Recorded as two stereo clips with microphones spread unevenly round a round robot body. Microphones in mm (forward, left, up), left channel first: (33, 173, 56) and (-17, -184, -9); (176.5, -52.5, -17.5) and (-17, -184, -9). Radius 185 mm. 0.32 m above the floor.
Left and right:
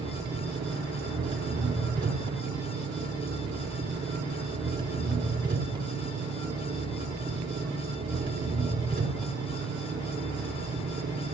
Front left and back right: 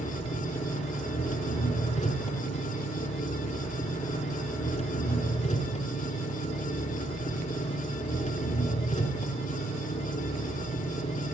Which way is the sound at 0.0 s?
25° right.